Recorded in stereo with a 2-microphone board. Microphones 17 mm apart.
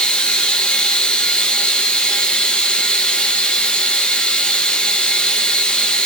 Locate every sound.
0.0 s running water: 70° left (ahead or behind), 0.8 m